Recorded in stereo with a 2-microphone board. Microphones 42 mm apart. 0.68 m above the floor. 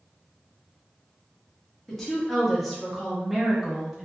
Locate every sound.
1.9 s a woman speaking: 5° left (ahead or behind), 1.1 m; by 4.1 s 15° right (ahead or behind), 0.7 m